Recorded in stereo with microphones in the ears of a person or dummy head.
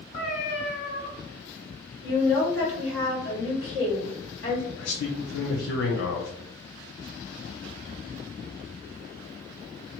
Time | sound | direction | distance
0.1 | a cat meowing | 45° left (ahead or behind) | 1.1 m
2.0 | a woman speaking | 60° left (ahead or behind) | 1.5 m
4.8 | a man speaking | 80° left | 0.5 m